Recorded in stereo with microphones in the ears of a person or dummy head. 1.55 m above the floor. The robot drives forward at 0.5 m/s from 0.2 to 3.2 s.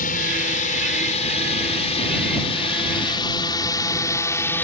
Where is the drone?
40° left (ahead or behind); by 4.6 s 10° left (ahead or behind).